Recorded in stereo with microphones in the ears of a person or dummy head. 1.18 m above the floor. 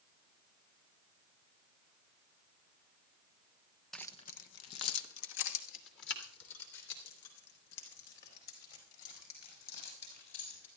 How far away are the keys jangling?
About 0.6 m.